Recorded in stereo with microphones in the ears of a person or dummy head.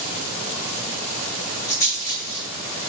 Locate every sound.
1.7 s a rattle: 20° left (ahead or behind), 1.4 m